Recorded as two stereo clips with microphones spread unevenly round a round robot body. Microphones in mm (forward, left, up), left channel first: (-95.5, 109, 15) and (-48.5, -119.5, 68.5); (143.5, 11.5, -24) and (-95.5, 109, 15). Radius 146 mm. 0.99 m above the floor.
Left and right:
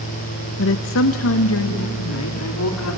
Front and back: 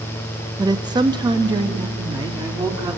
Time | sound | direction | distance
0.6 | a woman speaking | 80° left | 0.6 m